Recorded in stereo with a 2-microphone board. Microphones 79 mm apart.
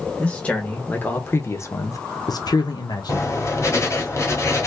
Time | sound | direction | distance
0.2 | a man speaking | 15° left (ahead or behind) | 1.5 m
3.1 | writing | 35° left (ahead or behind) | 1.2 m